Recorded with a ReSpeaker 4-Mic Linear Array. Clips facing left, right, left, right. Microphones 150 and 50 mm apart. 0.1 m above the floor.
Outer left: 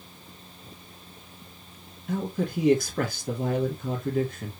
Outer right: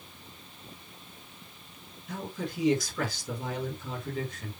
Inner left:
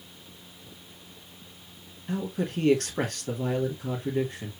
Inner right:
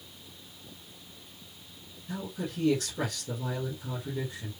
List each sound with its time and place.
2.1 s a man speaking: 55° left (ahead or behind), 3 m